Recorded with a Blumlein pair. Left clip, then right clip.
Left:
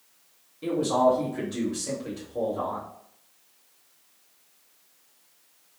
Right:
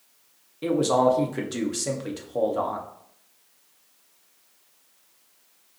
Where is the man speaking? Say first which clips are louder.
Right 2 dB; 25° right, 1.1 m.